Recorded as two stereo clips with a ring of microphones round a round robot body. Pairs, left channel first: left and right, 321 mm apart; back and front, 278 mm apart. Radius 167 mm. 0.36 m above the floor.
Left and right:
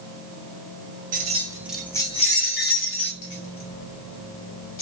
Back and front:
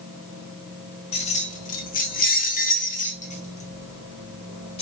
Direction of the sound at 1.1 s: 130° right.